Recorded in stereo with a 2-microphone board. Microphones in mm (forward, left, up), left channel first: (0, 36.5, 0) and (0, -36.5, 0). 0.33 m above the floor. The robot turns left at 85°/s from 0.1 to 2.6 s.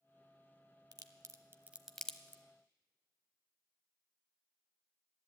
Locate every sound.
0.9 s a crack: 65° right (ahead or behind), 0.7 m; by 2.4 s 35° left (ahead or behind), 0.7 m